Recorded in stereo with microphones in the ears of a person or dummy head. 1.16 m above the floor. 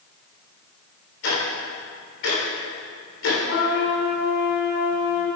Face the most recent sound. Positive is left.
turn(degrees=60)  # may be behind; listen again after turning